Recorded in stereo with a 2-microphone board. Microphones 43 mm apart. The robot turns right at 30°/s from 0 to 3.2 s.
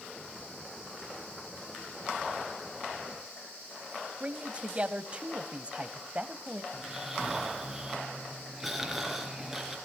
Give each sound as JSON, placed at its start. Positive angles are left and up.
{"t": 4.2, "sound": "a man speaking", "side_deg": -25, "distance_m": 1.2}
{"t": 6.7, "sound": "snoring", "side_deg": -5, "distance_m": 3.5}